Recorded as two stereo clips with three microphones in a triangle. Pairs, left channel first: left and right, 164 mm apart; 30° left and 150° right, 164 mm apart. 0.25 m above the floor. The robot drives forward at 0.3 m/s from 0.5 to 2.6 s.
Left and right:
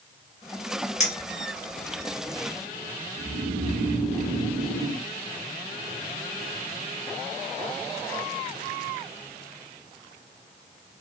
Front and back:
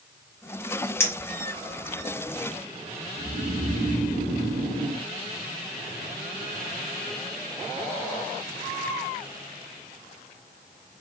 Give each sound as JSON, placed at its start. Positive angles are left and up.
{"t": 1.0, "sound": "a clink", "azimuth_deg": 95, "distance_m": 0.7}
{"t": 3.2, "sound": "snoring", "azimuth_deg": -145, "distance_m": 1.2}